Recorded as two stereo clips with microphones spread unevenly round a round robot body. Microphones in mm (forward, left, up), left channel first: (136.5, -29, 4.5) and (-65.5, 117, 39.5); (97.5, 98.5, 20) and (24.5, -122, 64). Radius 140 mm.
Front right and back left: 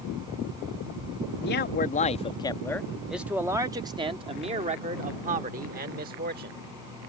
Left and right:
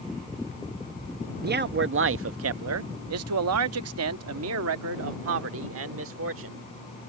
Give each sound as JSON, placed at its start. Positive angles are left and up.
{"t": 1.4, "sound": "a man speaking", "azimuth_deg": -55}